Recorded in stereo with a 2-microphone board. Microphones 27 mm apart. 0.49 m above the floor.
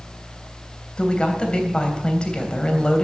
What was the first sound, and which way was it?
A woman speaking, 35° left (ahead or behind).